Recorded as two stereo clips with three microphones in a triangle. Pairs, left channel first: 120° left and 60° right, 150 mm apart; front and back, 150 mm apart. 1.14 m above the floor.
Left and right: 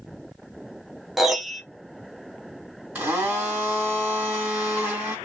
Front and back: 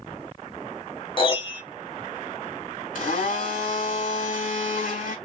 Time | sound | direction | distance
1.2 | a piano | 30° left | 0.8 m
3.0 | a blender | 20° left | 3 m